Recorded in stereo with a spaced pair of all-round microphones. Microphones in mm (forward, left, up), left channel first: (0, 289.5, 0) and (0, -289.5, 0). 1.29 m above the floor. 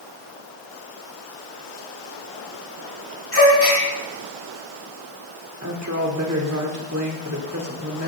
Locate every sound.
3.3 s a gasp: 65° right (ahead or behind), 7 m
5.6 s a woman speaking: 30° right (ahead or behind), 4.5 m